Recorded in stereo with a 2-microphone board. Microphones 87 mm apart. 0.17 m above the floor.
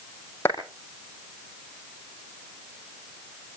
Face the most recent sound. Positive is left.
turn(degrees=30)  # may be behind; listen again after turning